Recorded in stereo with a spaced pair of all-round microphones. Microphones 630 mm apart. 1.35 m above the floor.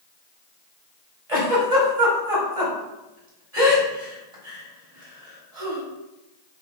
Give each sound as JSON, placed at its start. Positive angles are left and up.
{"t": 1.3, "sound": "a giggle", "side_deg": -60, "distance_m": 1.6}